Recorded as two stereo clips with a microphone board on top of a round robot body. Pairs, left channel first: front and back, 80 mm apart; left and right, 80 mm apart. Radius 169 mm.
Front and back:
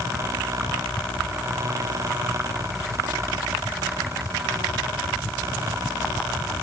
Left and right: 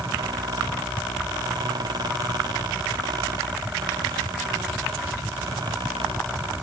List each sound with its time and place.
Only background noise.